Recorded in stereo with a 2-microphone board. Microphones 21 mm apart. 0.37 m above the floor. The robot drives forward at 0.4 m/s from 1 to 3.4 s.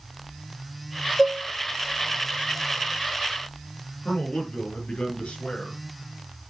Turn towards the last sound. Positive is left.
turn(degrees=80)